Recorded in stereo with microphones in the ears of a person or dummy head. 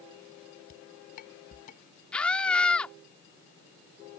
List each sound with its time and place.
0.7 s dishes clattering: 50° left (ahead or behind)
2.1 s a scream: 5° left (ahead or behind)